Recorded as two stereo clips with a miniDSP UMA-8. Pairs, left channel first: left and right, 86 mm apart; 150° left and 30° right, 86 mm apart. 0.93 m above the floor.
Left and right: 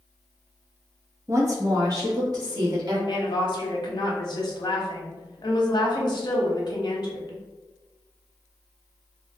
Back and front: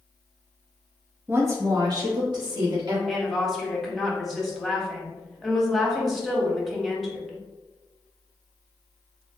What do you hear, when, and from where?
1.3 s a woman speaking: 75° right, 0.7 m; by 3.0 s 50° right, 1.8 m
3.1 s a woman speaking: 60° left, 0.9 m